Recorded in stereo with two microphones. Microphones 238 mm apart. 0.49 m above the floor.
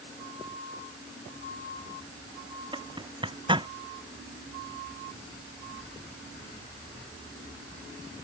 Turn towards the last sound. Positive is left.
turn(degrees=-20)  # may be behind; listen again after turning